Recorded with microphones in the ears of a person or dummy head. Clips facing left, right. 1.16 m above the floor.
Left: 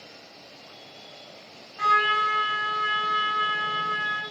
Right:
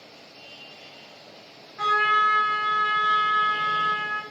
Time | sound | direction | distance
1.8 | a trumpet | 35° right (ahead or behind) | 1.5 m